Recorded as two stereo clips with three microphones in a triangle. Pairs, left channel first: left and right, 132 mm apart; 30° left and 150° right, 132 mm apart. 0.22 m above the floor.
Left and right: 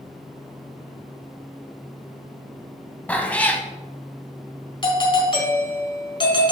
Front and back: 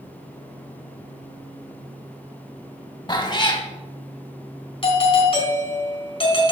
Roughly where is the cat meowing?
Ahead.